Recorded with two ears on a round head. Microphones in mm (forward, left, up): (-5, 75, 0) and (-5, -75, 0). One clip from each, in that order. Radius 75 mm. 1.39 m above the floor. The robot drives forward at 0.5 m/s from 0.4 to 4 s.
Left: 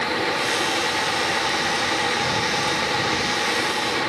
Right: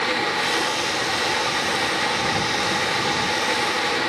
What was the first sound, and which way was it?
Only background noise.